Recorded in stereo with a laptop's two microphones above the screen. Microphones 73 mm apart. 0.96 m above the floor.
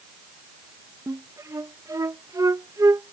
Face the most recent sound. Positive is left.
turn(degrees=-50)  # may be behind; listen again after turning